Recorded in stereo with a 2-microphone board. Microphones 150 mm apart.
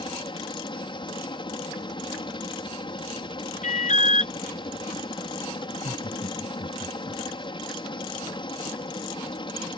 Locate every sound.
0.0 s a helicopter: 35° left (ahead or behind)
3.6 s an alarm: 50° left (ahead or behind)
5.7 s laughter: 50° left (ahead or behind)